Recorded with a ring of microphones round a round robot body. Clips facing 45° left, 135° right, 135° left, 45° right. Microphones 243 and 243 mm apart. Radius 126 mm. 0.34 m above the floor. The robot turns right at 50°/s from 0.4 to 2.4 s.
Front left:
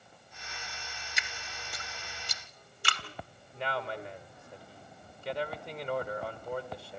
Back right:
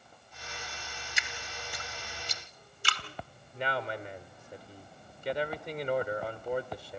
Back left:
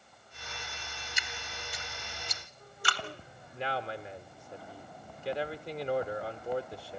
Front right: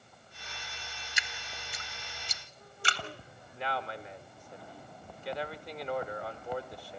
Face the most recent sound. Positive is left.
turn(degrees=170)